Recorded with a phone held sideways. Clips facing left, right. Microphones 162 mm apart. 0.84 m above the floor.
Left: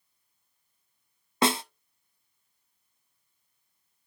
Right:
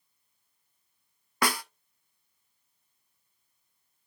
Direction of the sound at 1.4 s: 25° left (ahead or behind).